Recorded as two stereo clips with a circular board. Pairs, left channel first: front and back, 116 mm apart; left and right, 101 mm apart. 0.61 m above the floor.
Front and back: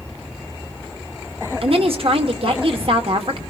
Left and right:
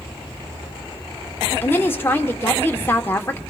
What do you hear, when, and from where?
1.6 s a woman speaking: 155° left, 1.2 m